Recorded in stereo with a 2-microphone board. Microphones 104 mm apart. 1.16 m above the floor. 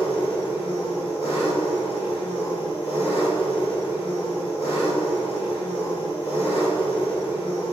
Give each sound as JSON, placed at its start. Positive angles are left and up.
{"t": 0.0, "sound": "an engine running", "side_deg": 65, "distance_m": 5.5}